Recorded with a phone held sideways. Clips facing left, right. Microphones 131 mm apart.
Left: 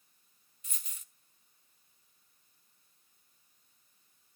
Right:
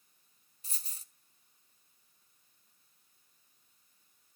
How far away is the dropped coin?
About 1.0 m.